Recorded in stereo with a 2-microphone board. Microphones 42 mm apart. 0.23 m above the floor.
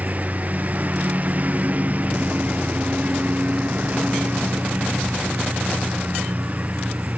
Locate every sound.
0.0 s a lawn mower: 40° right (ahead or behind)